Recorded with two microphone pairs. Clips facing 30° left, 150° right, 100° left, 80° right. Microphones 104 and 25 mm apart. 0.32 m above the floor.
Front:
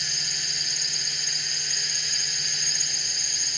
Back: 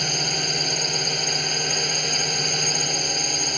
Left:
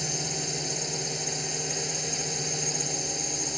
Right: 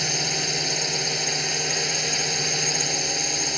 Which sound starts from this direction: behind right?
A drone, at 0.0 s.